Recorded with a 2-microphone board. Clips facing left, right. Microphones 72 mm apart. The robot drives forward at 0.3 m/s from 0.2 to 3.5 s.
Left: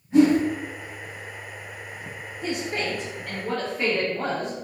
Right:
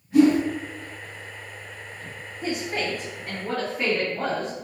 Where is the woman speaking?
25° right (ahead or behind), 1.4 m; by 4.5 s 20° right (ahead or behind), 1.6 m.